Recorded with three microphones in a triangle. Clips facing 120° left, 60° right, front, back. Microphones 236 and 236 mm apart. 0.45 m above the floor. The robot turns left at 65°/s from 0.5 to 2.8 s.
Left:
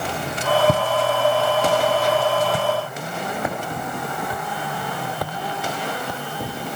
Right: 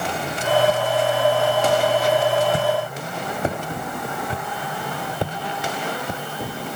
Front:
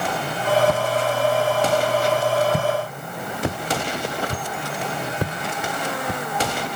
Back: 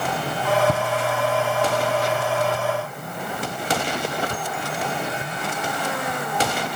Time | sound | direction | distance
0.7 | footsteps | 100° left | ?